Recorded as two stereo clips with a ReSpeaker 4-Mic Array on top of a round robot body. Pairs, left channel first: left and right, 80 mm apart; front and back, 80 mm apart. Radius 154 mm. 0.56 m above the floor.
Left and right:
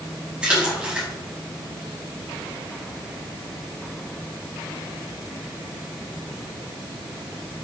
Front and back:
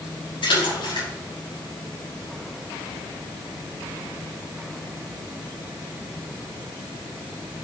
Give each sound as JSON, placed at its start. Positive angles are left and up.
{"t": 0.4, "sound": "a splash", "azimuth_deg": -10, "distance_m": 6.0}